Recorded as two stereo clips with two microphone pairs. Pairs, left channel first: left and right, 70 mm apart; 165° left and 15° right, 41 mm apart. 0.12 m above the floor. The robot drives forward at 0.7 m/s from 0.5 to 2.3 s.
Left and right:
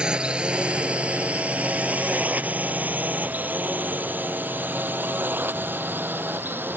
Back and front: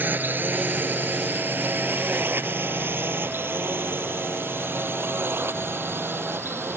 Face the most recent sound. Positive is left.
turn(degrees=-30)